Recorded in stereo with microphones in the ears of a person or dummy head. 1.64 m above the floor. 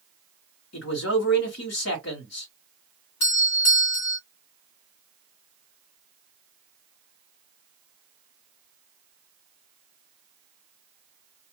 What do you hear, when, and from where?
0.7 s a man speaking: 75° left (ahead or behind), 1.5 m
3.2 s a doorbell: 70° left (ahead or behind), 1.6 m